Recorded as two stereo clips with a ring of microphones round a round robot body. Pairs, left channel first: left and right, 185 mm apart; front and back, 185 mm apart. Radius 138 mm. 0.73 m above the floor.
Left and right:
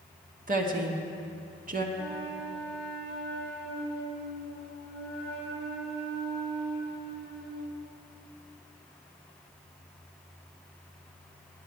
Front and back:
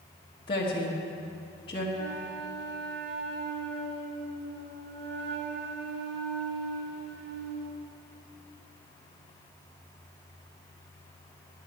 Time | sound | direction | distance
0.5 | a woman speaking | 60° right | 1.3 m
1.9 | a flute | 175° left | 1.4 m